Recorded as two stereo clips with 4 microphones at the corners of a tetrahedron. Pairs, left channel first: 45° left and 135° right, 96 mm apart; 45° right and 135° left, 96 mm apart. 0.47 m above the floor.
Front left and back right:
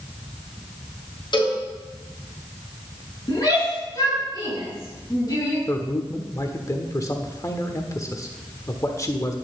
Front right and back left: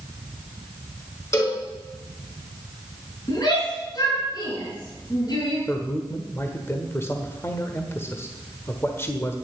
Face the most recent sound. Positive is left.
turn(degrees=5)